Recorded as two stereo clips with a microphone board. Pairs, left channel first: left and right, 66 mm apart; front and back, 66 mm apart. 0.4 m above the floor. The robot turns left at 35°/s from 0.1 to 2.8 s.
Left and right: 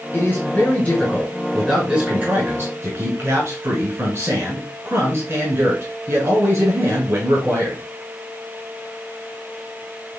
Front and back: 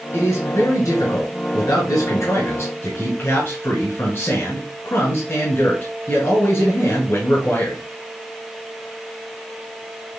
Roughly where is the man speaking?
Ahead left.